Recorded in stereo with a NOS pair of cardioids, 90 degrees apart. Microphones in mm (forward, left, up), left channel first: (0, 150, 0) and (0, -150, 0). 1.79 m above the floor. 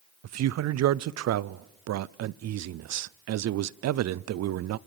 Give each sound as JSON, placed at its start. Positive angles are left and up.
{"t": 0.2, "sound": "a man speaking", "azimuth_deg": -60, "distance_m": 0.7}